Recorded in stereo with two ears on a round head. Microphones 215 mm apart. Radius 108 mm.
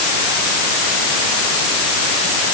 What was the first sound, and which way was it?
Only background noise.